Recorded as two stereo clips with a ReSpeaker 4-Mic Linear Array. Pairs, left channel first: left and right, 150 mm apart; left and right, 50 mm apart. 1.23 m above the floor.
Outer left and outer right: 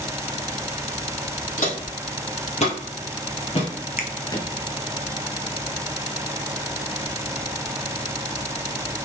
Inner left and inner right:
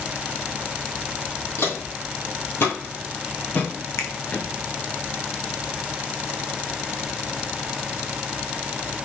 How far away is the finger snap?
About 0.8 m.